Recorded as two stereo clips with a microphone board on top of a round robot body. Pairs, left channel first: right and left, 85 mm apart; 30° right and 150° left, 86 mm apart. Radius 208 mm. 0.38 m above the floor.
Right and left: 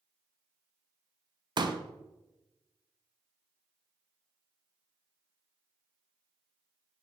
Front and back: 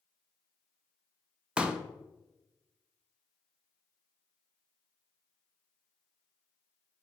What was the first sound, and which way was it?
A pop, 75° left.